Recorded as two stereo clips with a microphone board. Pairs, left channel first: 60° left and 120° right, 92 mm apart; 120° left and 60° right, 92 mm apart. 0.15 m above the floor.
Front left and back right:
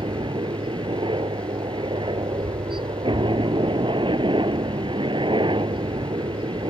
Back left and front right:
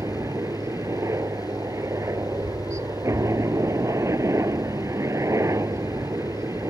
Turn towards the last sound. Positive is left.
turn(degrees=-110)